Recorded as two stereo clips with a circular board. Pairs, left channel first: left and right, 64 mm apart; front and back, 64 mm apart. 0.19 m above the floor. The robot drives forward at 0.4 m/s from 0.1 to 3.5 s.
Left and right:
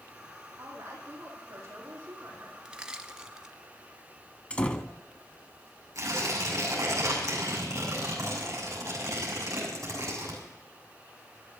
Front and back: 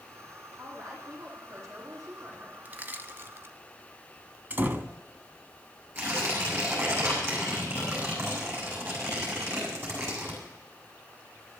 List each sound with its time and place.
0.6 s a woman speaking: 135° right, 6.5 m; by 2.6 s 140° right, 7 m
2.6 s crushing: 155° right, 0.8 m; by 3.5 s 165° right, 1.0 m
4.5 s a door slam: 150° left, 0.8 m
6.0 s tearing paper: 130° right, 6.5 m